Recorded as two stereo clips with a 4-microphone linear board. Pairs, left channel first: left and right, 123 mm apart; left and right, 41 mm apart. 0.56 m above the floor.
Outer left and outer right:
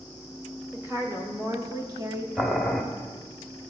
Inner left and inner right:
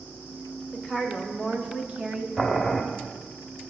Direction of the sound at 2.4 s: 5° left (ahead or behind).